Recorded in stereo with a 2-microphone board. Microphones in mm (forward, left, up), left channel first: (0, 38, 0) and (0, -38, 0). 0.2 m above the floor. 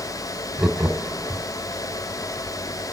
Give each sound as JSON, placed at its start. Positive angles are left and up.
{"t": 0.6, "sound": "laughter", "side_deg": -10, "distance_m": 1.0}